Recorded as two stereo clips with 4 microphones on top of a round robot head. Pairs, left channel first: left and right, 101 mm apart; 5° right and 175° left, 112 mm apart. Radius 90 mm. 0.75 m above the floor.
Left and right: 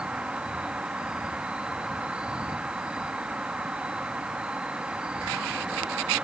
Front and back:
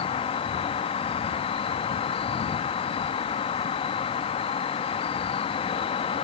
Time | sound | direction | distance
0.0 | an insect | 10° right | ?